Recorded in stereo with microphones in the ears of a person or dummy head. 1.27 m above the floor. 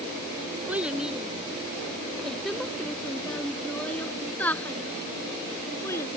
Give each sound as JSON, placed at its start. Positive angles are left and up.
{"t": 0.7, "sound": "a child speaking", "side_deg": -10}